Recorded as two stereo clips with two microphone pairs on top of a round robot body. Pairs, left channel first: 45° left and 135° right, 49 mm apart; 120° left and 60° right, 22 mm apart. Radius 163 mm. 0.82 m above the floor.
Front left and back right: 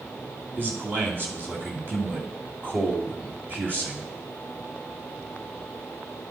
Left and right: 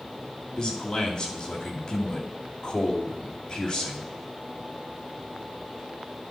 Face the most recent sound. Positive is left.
turn(degrees=180)